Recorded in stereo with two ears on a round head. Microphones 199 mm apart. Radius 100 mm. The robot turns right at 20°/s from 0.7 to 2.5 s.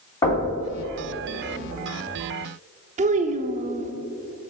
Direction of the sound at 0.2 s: 20° left (ahead or behind).